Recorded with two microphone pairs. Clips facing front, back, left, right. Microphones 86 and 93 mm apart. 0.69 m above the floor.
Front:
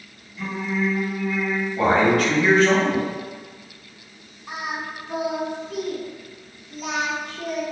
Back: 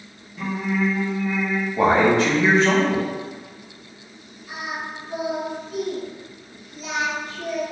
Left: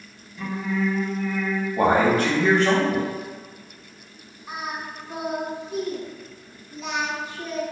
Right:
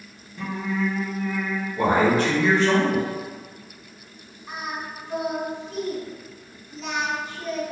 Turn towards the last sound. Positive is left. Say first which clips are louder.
# front 1 dB, even
turn(degrees=0)